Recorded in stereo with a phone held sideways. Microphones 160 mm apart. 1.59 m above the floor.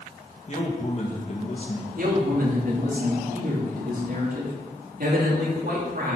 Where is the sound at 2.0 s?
65° right (ahead or behind), 3 m.